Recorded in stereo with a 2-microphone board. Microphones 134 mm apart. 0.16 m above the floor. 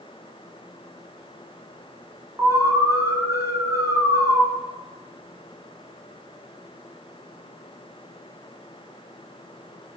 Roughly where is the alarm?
Centre.